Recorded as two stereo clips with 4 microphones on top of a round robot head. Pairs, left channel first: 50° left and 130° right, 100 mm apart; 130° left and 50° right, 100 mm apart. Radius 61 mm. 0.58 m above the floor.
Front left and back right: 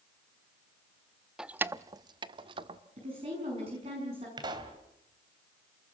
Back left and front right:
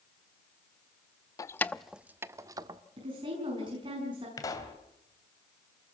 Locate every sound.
1.4 s keys jangling: 150° left, 0.7 m; by 2.8 s 95° right, 1.4 m
3.0 s a woman speaking: 95° right, 7 m
4.4 s a pop: 175° right, 2.5 m